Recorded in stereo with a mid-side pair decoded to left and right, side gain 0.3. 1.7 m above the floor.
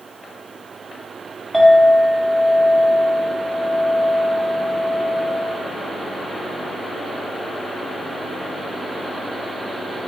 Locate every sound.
1.5 s a clink: 20° right, 1.9 m